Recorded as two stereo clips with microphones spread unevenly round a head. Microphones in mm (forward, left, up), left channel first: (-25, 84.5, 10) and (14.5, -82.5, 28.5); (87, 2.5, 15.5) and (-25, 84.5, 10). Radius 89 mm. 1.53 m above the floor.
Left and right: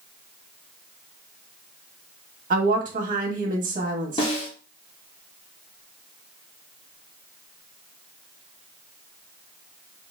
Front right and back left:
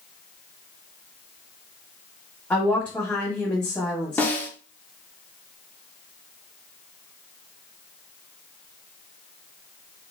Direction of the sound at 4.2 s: 40° left.